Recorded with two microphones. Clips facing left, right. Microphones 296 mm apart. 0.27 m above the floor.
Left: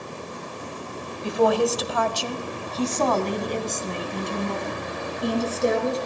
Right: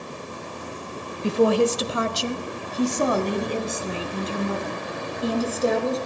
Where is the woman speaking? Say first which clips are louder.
Right 2 dB; 35° right (ahead or behind), 1.0 m; by 6.0 s centre (ahead or behind), 3.5 m.